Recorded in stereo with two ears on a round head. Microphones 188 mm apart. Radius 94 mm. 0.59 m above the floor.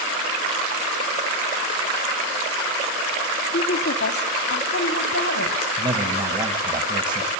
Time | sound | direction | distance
3.5 | a woman speaking | 45° left (ahead or behind) | 1.5 m
5.8 | a man speaking | 25° right (ahead or behind) | 3 m